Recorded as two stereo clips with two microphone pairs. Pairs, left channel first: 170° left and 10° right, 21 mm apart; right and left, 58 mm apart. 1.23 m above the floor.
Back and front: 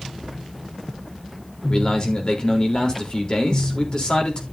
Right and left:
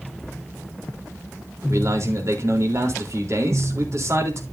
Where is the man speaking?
120° left, 3.5 m.